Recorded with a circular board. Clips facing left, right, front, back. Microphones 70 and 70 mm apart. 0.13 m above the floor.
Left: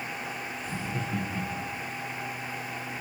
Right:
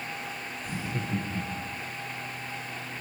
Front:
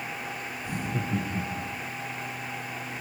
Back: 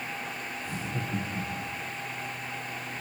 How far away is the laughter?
About 3 m.